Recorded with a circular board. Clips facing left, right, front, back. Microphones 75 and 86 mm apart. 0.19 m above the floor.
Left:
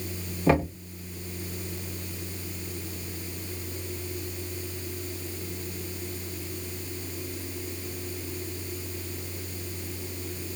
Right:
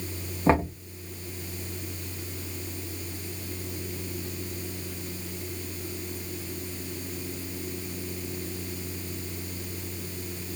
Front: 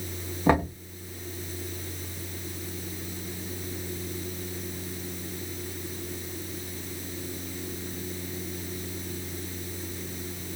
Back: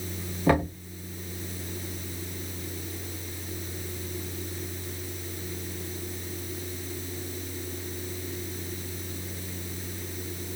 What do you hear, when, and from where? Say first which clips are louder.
0.5 s knocking: even, even; 55° right, 0.9 m